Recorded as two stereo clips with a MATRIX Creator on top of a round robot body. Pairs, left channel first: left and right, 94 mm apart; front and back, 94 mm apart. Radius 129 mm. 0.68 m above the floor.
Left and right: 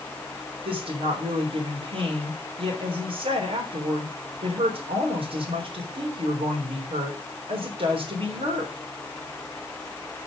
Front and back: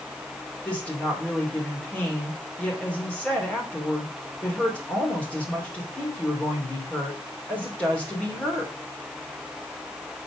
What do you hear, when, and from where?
0.7 s a woman speaking: 75° right, 3 m